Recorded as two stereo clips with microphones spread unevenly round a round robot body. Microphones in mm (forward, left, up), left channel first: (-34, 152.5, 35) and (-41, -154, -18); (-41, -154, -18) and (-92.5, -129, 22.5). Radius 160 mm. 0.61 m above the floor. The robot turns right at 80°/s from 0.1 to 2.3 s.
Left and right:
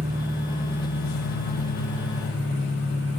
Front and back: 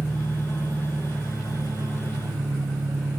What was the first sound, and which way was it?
An engine running, 25° right.